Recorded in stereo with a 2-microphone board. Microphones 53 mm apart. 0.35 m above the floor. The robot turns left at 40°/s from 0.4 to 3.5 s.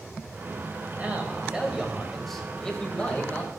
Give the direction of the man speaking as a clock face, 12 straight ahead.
4 o'clock.